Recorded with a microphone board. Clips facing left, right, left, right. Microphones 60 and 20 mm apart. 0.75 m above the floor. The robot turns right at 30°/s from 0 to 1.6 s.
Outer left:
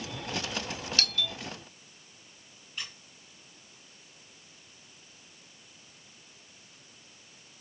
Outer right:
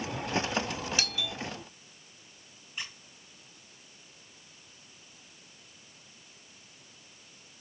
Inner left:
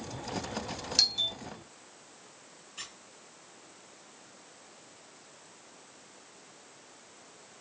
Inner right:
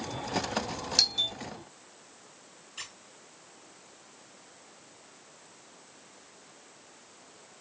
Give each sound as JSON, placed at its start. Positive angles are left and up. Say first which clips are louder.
{"t": 1.0, "sound": "a doorbell", "louder": "outer left 1 dB, inner right 1 dB", "side_deg": -15, "distance_m": 0.9}
{"t": 2.8, "sound": "a squeak", "louder": "outer right 1 dB, inner right 1 dB", "side_deg": -15, "distance_m": 3.0}